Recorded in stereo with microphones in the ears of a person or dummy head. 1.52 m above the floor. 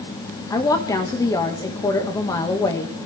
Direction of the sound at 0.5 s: 20° left (ahead or behind).